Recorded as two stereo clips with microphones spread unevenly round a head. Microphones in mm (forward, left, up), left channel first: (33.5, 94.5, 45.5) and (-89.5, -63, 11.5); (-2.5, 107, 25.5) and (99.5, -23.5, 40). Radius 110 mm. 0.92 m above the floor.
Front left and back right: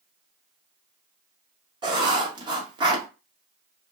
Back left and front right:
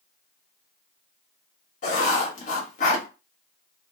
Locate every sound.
1.8 s writing: 170° left, 1.0 m